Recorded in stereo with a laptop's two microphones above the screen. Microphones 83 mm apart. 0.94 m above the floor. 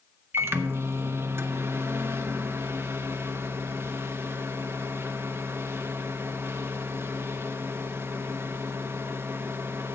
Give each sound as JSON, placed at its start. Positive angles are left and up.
{"t": 0.3, "sound": "a microwave", "side_deg": -30, "distance_m": 0.6}